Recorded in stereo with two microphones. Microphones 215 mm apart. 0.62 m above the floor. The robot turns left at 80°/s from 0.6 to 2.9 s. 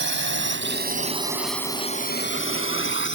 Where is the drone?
65° right (ahead or behind); by 3.1 s 70° left (ahead or behind).